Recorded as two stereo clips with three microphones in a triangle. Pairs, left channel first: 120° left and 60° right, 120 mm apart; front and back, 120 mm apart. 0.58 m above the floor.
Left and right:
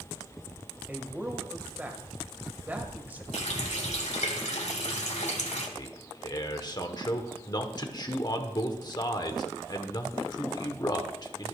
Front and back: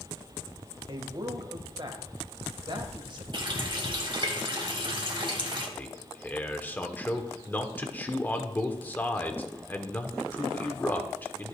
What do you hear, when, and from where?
0.9 s a man speaking: 135° right, 2 m
3.3 s a running tap: 130° left, 2.5 m
5.8 s a man speaking: 70° left, 1.4 m